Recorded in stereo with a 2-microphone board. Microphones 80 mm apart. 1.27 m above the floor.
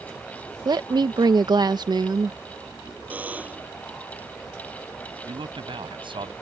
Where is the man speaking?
80° right.